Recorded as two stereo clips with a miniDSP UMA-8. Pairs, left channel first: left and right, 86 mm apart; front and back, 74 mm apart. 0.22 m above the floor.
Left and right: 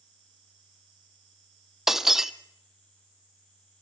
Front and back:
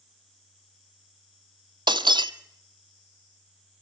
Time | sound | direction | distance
1.9 | breaking glass | 175° right | 0.6 m